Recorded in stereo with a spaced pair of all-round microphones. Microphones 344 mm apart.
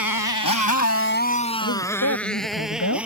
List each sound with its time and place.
0.0 s a motorcycle: 60° left (ahead or behind); by 3.1 s 5° right (ahead or behind)
1.6 s a woman speaking: 55° left (ahead or behind)